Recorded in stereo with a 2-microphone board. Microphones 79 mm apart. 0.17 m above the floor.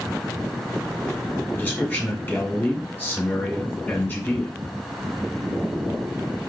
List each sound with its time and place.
1.5 s a man speaking: 25° left (ahead or behind), 1.6 m